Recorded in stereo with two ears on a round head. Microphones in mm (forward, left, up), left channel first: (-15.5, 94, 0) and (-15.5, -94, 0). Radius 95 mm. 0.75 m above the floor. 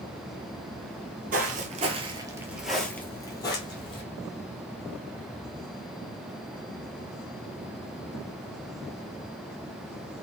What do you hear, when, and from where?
1.3 s footsteps: 40° right (ahead or behind), 1.0 m; by 4.0 s 25° left (ahead or behind), 1.4 m